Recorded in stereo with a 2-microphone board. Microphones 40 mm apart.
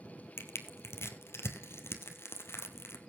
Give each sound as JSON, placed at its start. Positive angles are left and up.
{"t": 0.4, "sound": "crushing", "side_deg": 85, "distance_m": 1.8}